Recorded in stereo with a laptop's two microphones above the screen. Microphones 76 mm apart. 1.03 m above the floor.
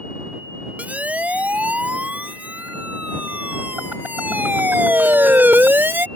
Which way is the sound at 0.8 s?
20° right (ahead or behind).